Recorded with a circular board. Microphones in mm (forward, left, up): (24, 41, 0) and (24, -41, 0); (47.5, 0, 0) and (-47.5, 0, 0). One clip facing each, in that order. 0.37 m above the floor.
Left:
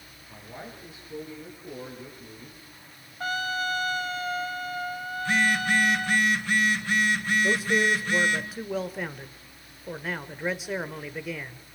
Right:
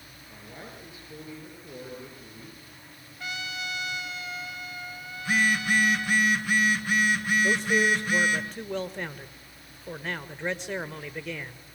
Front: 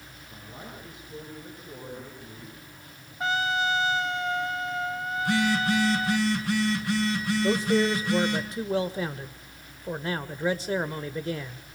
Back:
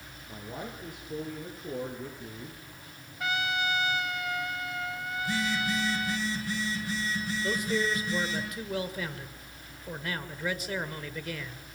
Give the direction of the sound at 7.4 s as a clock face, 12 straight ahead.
12 o'clock.